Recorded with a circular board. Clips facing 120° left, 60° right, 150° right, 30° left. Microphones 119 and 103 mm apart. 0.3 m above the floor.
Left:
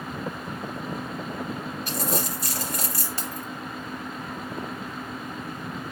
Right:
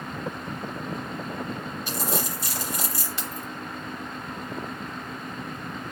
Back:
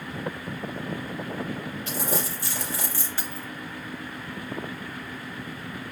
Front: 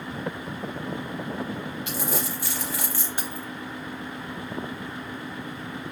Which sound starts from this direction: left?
Keys jangling, at 3.2 s.